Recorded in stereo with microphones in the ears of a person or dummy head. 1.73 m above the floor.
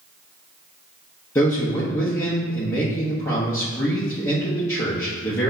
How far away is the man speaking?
About 0.8 m.